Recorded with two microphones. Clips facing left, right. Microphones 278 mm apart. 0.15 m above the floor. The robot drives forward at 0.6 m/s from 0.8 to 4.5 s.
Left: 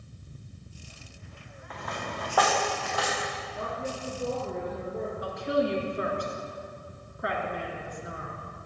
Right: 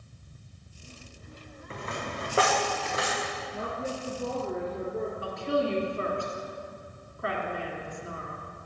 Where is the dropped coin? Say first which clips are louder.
Right 1 dB; 30° right (ahead or behind), 2.5 m; by 3.2 s 20° right (ahead or behind), 3.5 m.